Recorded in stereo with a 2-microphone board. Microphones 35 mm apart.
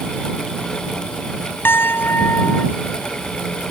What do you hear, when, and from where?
1.6 s a piano: 75° left (ahead or behind)